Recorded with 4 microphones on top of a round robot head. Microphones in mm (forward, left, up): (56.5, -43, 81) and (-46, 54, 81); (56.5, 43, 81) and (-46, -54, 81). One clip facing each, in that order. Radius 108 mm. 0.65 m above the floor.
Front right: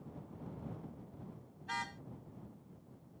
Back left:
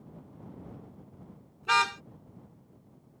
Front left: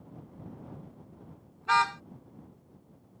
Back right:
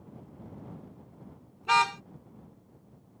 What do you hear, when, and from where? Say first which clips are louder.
1.6 s a car horn: back left 14 dB, back right 1 dB; 150° left